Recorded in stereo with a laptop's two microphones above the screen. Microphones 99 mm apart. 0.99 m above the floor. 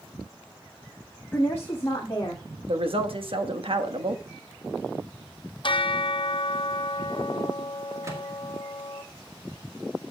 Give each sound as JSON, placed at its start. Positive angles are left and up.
{"t": 1.3, "sound": "a woman speaking", "side_deg": 20, "distance_m": 0.9}
{"t": 2.7, "sound": "a woman speaking", "side_deg": -65, "distance_m": 1.3}
{"t": 5.6, "sound": "a bell", "side_deg": 55, "distance_m": 0.5}
{"t": 8.0, "sound": "a microwave", "side_deg": -30, "distance_m": 1.3}